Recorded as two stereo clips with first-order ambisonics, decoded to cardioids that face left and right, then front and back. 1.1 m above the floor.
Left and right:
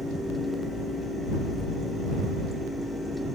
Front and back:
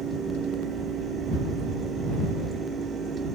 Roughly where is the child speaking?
No child speaking in this recording.